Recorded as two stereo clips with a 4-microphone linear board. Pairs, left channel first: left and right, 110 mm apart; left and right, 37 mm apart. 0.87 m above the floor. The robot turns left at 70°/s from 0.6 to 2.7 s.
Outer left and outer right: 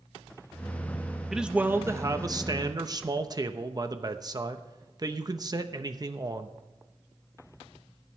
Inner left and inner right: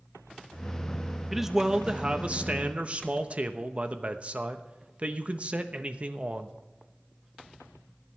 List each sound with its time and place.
1.3 s a man speaking: 5° right, 0.9 m; by 6.5 s 100° right, 0.9 m